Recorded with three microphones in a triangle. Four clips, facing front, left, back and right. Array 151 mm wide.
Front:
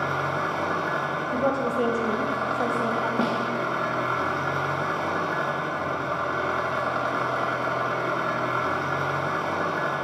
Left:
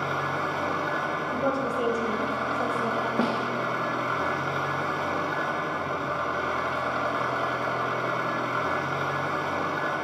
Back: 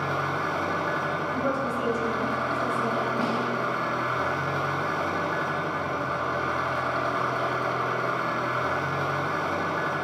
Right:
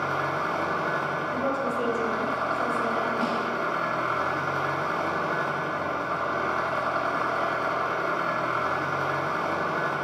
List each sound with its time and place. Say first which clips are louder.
0.0 s an engine running: right 1 dB, front 1 dB; 50° right, 1.1 m
1.3 s a woman speaking: left 1 dB, front 6 dB; 10° left, 0.9 m
3.2 s a snare drum: left 1 dB, front 1 dB; 55° left, 0.9 m